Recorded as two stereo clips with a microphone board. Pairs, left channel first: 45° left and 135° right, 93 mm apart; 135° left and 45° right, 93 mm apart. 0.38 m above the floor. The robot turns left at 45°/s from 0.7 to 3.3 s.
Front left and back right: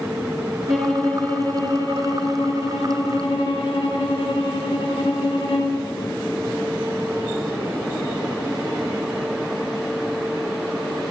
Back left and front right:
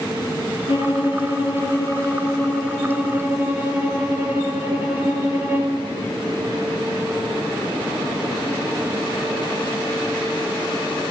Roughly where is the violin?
Behind left.